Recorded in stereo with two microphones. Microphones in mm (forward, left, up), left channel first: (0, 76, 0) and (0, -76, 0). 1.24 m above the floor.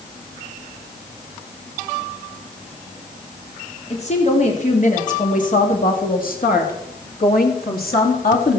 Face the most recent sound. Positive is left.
turn(degrees=80)